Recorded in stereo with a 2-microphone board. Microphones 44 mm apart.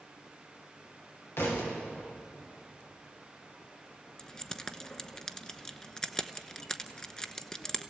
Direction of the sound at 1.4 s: 70° left (ahead or behind).